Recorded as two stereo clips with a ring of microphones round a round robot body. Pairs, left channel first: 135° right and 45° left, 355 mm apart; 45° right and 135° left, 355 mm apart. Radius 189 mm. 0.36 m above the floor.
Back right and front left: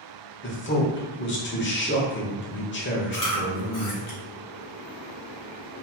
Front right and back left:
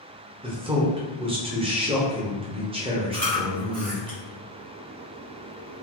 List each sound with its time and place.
0.4 s a man speaking: 160° right, 0.9 m
3.1 s chewing: 170° right, 1.9 m